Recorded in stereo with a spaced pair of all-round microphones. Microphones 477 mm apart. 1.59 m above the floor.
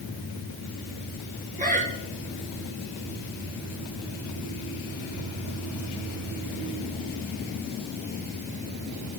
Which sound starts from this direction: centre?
Breathing, at 1.6 s.